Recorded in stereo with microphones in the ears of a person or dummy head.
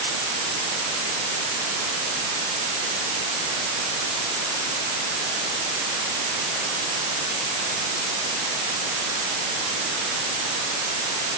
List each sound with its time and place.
Only background noise.